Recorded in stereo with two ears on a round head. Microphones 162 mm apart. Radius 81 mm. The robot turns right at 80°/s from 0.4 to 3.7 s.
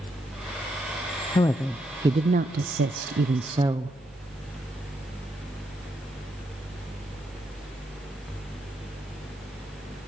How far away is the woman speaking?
About 0.5 m.